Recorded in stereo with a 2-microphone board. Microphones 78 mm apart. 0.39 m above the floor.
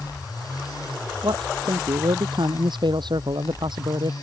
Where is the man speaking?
70° right (ahead or behind).